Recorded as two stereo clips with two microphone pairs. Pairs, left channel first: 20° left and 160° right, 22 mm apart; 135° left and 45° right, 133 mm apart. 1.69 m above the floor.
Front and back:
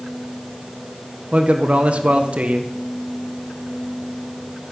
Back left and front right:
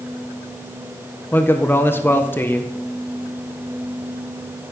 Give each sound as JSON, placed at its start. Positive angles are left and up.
{"t": 1.3, "sound": "a man speaking", "azimuth_deg": -155, "distance_m": 1.7}